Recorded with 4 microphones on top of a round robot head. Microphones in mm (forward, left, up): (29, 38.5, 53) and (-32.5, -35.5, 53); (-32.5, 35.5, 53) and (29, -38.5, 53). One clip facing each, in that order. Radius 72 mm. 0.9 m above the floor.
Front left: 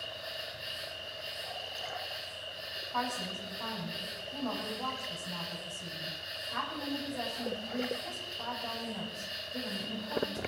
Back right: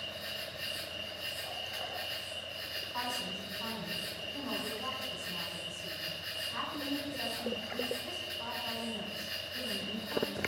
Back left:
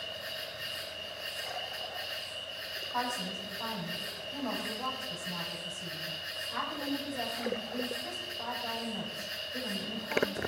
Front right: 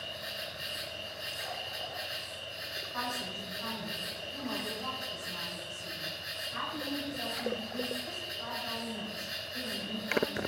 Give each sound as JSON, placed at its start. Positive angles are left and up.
{"t": 0.0, "sound": "an insect", "azimuth_deg": -125, "distance_m": 5.0}
{"t": 2.9, "sound": "a woman speaking", "azimuth_deg": 85, "distance_m": 6.5}